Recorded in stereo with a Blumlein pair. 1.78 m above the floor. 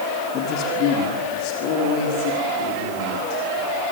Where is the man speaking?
40° left, 3.5 m; by 3.8 s 50° left, 7 m.